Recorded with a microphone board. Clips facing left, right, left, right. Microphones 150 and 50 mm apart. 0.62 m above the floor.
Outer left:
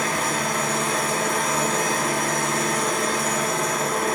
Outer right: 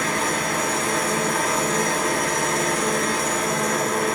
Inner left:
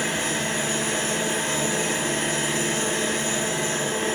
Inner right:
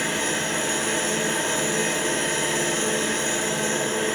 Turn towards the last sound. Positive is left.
turn(degrees=-65)  # may be behind; listen again after turning